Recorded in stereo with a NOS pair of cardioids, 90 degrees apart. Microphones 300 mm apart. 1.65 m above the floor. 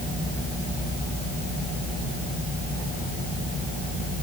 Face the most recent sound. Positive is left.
No sound to turn to.